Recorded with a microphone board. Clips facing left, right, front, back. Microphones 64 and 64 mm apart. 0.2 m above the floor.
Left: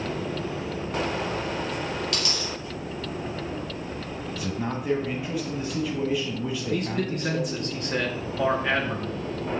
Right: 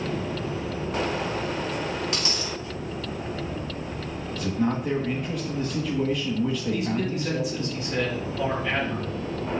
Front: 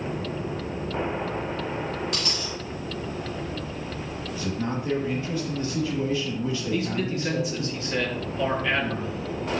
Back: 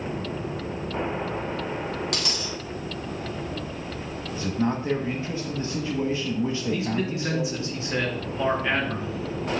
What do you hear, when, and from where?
2.1 s a dropped coin: 155° right, 2.5 m
4.3 s a man speaking: straight behind, 1.1 m
6.7 s a man speaking: 115° left, 2.5 m